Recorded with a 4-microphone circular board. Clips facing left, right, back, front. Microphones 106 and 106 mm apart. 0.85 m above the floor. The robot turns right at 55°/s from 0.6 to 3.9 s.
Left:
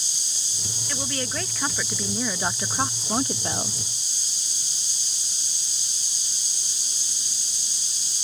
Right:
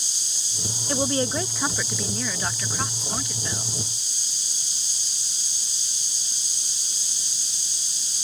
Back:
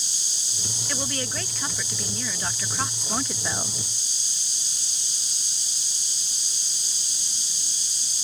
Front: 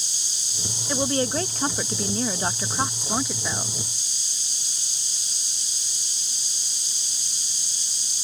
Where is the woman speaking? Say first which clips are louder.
Right 7 dB, front 8 dB; 55° right; by 3.8 s 100° left.